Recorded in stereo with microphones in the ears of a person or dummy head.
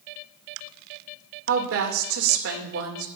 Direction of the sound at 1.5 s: 70° right (ahead or behind).